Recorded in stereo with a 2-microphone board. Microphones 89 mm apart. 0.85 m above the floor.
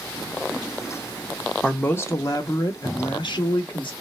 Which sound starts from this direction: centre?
A man speaking, at 1.6 s.